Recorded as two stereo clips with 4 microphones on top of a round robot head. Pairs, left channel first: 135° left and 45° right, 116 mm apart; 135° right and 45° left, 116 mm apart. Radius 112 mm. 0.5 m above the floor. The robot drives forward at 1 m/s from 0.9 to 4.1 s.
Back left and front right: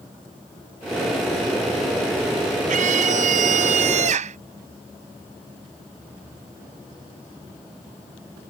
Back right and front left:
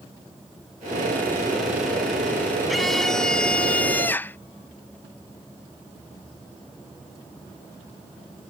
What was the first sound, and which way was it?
A scream, 45° right.